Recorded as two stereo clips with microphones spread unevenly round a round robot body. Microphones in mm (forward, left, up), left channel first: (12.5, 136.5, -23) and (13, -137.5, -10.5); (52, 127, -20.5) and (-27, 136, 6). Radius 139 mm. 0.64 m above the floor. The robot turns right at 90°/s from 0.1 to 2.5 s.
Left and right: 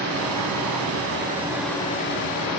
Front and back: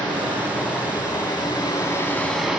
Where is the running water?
140° right, 0.9 m; by 2.6 s 80° left, 0.9 m.